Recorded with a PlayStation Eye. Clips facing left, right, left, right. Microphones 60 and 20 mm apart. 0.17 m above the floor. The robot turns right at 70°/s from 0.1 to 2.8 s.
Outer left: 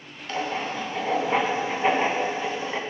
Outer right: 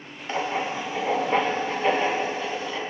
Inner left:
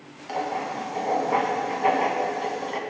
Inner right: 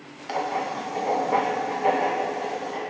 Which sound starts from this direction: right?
Writing, at 0.3 s.